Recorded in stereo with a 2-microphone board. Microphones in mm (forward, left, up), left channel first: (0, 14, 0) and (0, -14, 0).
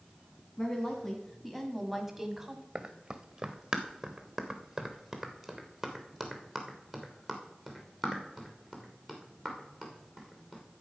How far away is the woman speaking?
About 1.9 m.